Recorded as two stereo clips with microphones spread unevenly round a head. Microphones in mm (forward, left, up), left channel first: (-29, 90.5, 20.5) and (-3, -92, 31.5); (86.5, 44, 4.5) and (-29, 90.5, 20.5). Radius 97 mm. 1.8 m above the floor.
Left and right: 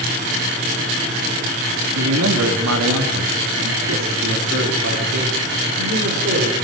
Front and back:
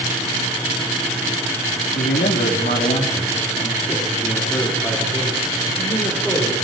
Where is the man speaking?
65° right, 3.5 m; by 6.5 s 115° right, 6.5 m.